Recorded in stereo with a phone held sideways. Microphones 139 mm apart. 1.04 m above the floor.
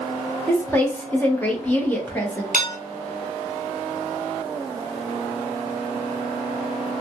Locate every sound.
0.5 s a woman speaking: 10° left (ahead or behind), 1.1 m
2.5 s dishes clattering: 75° right (ahead or behind), 0.7 m